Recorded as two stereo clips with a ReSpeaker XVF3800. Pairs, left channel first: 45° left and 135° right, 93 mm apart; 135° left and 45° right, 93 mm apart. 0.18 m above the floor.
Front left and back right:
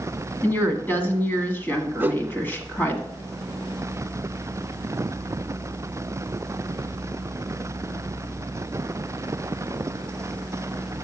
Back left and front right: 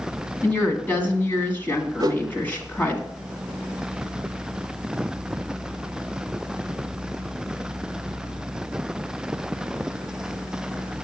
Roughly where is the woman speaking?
Left.